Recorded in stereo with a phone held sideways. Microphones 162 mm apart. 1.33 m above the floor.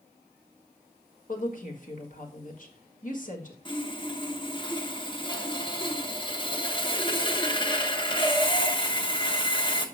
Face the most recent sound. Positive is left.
turn(degrees=30)  # may be behind; listen again after turning